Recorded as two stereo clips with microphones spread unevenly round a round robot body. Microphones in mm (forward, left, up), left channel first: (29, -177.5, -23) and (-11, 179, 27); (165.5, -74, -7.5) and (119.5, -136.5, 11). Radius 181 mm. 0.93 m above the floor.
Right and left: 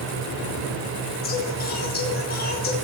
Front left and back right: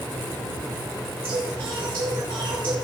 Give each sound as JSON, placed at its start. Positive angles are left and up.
{"t": 1.2, "sound": "singing", "azimuth_deg": -150, "distance_m": 2.5}